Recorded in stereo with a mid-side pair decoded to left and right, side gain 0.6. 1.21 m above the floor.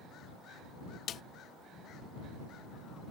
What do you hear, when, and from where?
1.1 s a snare drum: 50° left